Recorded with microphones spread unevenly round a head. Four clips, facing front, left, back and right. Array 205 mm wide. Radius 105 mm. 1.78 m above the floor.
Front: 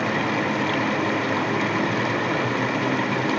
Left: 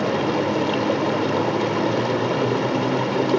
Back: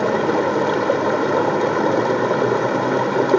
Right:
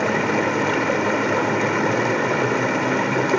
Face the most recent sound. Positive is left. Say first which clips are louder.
# right 1 dB, back 6 dB
turn(degrees=175)